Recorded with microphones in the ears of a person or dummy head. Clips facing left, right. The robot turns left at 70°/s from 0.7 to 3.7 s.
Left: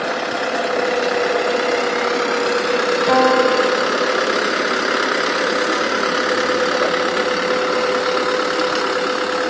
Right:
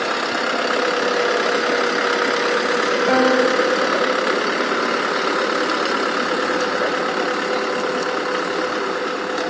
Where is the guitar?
25° left, 2 m; by 4.3 s 15° right, 2 m.